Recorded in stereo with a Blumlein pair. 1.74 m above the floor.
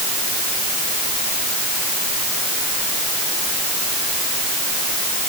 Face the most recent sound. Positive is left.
No sound to turn to.